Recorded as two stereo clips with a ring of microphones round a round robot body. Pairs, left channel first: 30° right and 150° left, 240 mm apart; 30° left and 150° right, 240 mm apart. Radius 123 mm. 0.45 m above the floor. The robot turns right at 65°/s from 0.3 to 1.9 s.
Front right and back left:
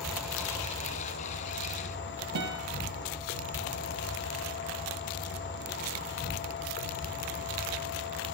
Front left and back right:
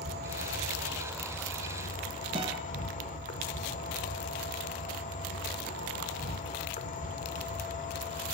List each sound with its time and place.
0.0 s an insect: 120° right, 1.4 m; by 8.3 s 15° right, 1.4 m
2.4 s a guitar: 140° left, 1.4 m